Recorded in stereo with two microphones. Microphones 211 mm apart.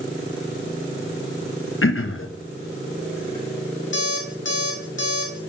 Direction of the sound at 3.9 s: 70° left (ahead or behind).